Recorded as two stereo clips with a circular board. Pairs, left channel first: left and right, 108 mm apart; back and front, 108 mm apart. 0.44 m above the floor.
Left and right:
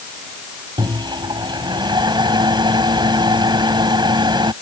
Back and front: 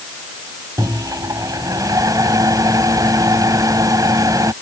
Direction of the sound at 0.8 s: 50° right.